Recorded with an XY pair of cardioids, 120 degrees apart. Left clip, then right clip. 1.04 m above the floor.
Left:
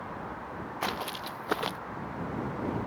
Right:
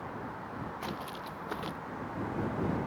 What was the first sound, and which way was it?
Footsteps, 50° left.